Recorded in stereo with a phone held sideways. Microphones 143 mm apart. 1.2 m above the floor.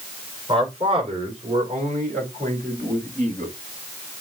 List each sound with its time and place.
0.5 s a man speaking: 40° right (ahead or behind), 4 m; by 3.5 s 60° right (ahead or behind), 5.5 m